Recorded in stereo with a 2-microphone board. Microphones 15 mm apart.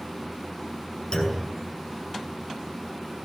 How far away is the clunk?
About 8.5 m.